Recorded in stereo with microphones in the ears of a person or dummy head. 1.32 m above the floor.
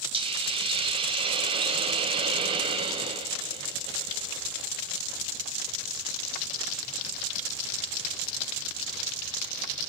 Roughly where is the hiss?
Right.